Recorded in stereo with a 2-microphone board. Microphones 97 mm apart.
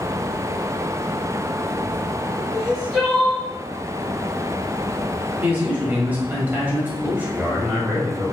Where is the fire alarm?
I don't hear a fire alarm.